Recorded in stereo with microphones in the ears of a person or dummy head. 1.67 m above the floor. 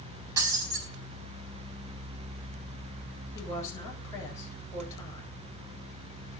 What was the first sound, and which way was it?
Breaking glass, 15° right (ahead or behind).